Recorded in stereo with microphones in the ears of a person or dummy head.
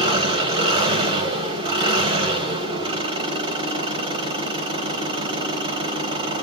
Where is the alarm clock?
No alarm clock in this recording.